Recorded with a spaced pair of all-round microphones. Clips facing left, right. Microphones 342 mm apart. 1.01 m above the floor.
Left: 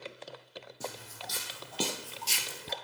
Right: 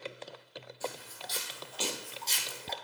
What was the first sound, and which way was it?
Footsteps, 60° left (ahead or behind).